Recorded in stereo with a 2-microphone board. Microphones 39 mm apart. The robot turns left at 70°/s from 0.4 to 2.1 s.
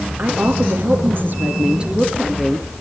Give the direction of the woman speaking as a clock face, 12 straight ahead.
2 o'clock.